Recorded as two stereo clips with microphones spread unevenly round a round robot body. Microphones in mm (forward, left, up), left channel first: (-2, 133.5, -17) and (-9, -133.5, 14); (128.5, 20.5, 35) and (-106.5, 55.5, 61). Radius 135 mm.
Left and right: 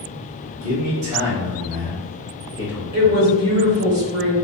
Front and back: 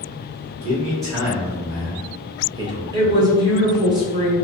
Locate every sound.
0.6 s a man speaking: 110° right, 1.8 m; by 3.4 s 85° left, 0.8 m
2.9 s a woman speaking: 115° right, 1.5 m